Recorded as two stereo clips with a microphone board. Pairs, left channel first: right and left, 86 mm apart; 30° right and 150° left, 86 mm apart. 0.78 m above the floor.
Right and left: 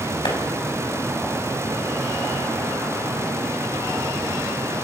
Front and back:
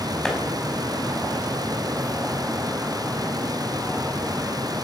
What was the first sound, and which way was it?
A clap, 110° right.